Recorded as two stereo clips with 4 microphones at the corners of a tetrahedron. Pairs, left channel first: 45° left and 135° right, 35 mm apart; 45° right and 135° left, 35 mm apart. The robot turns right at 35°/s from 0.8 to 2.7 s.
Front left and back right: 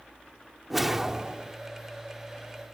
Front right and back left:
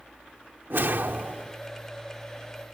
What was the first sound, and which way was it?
A whoosh, 140° left.